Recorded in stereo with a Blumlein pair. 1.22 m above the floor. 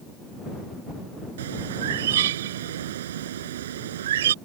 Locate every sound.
1.4 s a bird: 60° right